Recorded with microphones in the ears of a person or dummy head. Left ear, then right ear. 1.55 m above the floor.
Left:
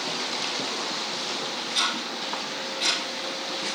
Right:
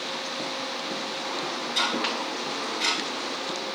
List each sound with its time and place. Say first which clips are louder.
1.8 s ticking: right 1 dB; 5° right (ahead or behind), 3.5 m